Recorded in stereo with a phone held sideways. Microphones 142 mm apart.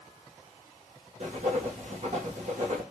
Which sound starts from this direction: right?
Writing, at 1.2 s.